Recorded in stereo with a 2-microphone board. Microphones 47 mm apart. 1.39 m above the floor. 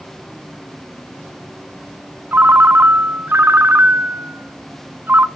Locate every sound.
2.3 s a ringtone: 45° right (ahead or behind), 0.7 m